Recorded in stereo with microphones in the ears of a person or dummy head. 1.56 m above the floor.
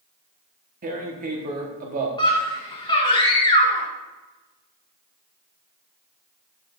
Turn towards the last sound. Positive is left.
turn(degrees=20)  # may be behind; listen again after turning